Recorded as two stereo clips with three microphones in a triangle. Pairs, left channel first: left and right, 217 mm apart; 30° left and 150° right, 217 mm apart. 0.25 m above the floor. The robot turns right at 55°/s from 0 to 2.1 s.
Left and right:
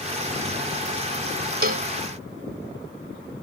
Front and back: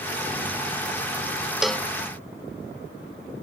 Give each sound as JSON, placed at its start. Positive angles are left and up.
{"t": 1.6, "sound": "a cowbell", "azimuth_deg": -65}